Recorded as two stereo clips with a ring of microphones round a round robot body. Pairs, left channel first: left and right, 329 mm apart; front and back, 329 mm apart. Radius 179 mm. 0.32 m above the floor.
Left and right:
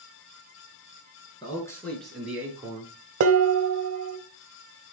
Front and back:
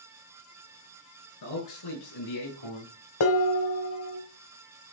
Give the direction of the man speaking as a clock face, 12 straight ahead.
12 o'clock.